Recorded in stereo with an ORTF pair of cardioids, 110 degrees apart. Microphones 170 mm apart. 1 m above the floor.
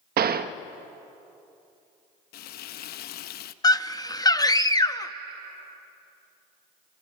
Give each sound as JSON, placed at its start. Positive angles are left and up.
{"t": 0.2, "sound": "a gunshot", "azimuth_deg": -65, "distance_m": 0.7}
{"t": 2.3, "sound": "frying", "azimuth_deg": 70, "distance_m": 0.8}
{"t": 3.6, "sound": "a scream", "azimuth_deg": 20, "distance_m": 1.0}